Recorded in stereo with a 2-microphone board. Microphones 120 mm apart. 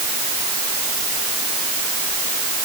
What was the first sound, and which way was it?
Only background noise.